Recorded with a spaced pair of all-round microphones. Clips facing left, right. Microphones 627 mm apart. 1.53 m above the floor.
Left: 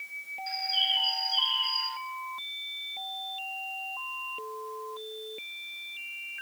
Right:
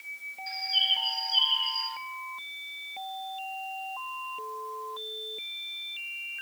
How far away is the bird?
About 1.9 m.